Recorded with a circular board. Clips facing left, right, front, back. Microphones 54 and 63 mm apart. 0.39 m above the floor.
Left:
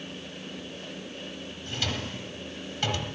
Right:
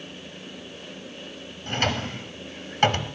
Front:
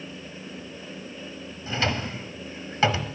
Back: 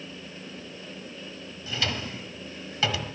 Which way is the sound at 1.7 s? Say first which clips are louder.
Right 7 dB, front 4 dB; 50° right.